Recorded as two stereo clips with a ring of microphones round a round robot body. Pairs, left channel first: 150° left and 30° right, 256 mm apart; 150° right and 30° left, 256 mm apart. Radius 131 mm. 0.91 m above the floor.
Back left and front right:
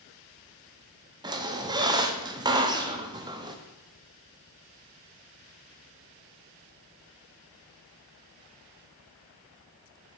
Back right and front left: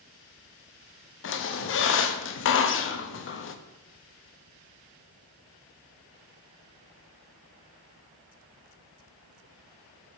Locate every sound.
1.2 s a squeak: 105° right, 0.6 m